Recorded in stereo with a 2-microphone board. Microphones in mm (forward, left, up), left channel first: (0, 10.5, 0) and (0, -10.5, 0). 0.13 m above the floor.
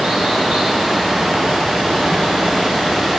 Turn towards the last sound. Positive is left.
turn(degrees=-80)